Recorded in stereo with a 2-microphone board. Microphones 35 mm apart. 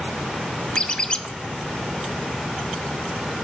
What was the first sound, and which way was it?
A squeak, 25° left (ahead or behind).